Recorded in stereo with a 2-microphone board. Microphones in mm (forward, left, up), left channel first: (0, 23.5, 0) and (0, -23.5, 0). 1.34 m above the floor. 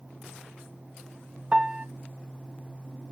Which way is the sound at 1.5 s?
20° right (ahead or behind).